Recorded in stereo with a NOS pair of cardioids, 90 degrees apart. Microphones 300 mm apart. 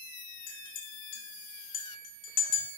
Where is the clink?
55° left, 0.7 m.